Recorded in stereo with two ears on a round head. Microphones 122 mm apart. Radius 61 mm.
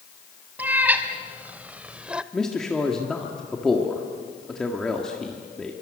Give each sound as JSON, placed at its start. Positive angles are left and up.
{"t": 0.6, "sound": "a cat meowing", "side_deg": -10, "distance_m": 1.7}
{"t": 2.3, "sound": "a man speaking", "side_deg": 5, "distance_m": 1.8}